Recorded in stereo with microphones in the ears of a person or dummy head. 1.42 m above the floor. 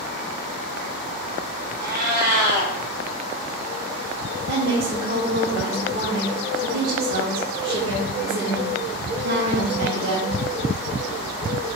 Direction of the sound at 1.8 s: 55° right (ahead or behind).